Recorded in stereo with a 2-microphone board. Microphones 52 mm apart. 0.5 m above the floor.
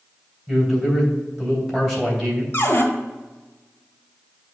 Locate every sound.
0.5 s a man speaking: 10° right (ahead or behind), 3 m
2.5 s a cupboard door: 50° left (ahead or behind), 1.5 m